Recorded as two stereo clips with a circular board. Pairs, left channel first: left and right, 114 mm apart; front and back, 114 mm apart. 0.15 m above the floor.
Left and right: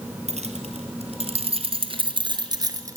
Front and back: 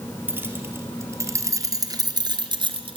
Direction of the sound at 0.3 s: 110° right.